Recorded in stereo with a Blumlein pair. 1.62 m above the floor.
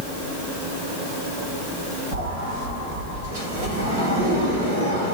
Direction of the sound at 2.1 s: 55° right.